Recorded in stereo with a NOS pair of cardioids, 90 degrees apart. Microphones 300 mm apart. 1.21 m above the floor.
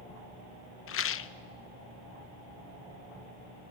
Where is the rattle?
45° left, 0.9 m.